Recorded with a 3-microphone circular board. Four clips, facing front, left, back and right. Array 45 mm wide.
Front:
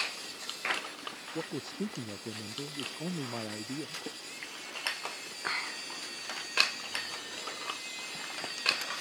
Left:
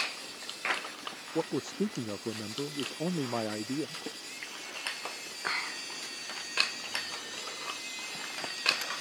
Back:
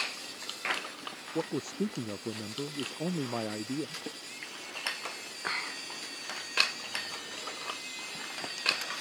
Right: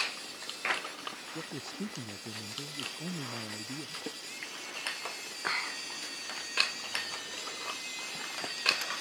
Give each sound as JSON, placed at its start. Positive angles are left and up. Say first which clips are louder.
{"t": 1.4, "sound": "a man speaking", "louder": "left 13 dB, back 5 dB", "azimuth_deg": 110}